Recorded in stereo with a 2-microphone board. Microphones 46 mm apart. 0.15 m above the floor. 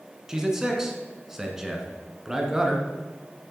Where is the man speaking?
10° right (ahead or behind), 1.7 m.